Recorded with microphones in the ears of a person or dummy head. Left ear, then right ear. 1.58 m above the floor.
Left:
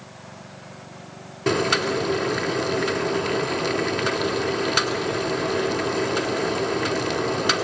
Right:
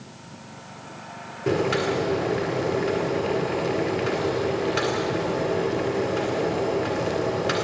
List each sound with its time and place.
1.5 s boiling: 60° left (ahead or behind), 1.8 m